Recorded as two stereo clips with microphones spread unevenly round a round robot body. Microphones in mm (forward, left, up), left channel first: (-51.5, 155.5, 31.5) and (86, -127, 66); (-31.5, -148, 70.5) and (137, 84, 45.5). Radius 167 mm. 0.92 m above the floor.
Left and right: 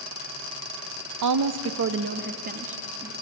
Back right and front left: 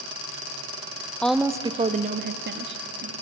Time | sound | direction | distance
1.2 | a woman speaking | 40° right | 1.1 m